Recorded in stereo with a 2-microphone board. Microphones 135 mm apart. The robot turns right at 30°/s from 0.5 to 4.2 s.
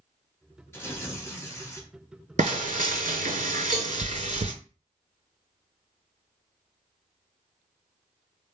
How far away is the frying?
About 0.5 m.